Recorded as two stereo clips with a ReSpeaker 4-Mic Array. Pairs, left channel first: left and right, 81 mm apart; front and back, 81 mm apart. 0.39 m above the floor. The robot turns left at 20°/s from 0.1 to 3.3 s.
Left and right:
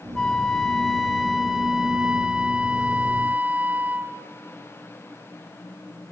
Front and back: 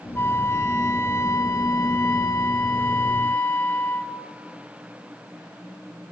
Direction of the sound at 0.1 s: 15° left.